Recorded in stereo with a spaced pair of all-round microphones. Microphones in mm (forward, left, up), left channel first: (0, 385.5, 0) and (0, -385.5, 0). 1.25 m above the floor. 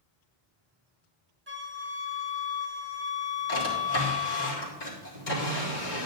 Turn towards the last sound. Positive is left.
turn(degrees=80)